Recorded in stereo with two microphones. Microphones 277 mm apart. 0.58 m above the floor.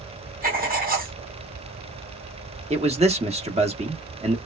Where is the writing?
30° right (ahead or behind), 1.3 m.